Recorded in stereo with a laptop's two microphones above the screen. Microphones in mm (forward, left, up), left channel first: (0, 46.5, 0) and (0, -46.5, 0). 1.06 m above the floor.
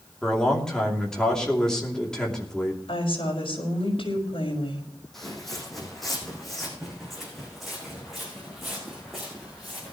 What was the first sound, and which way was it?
A man speaking, 5° left (ahead or behind).